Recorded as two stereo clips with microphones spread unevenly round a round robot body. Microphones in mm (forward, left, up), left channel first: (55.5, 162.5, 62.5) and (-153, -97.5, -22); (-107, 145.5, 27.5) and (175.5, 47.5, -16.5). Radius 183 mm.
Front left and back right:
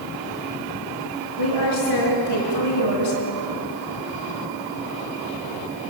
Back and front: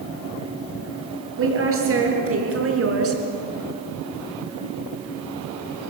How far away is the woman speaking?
About 7.5 m.